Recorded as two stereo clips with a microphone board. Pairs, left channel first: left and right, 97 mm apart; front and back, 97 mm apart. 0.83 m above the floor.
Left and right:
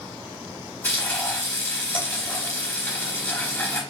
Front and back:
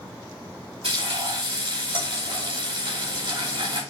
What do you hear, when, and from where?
0.8 s frying: 155° left, 3 m